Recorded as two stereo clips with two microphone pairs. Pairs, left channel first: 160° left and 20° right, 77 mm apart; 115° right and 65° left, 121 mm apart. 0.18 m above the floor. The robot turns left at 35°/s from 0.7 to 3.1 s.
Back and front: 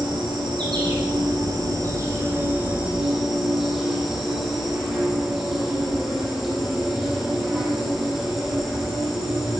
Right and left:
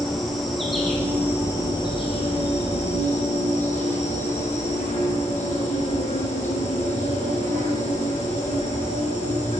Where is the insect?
25° right, 3 m; by 9.6 s 105° right, 3 m.